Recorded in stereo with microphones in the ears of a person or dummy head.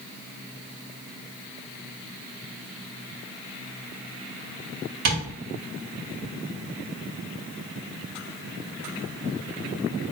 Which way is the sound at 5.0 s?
60° right (ahead or behind).